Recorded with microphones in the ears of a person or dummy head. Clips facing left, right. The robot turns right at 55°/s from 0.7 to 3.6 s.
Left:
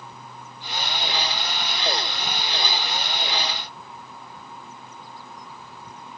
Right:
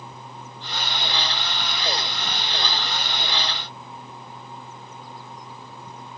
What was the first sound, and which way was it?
Only background noise.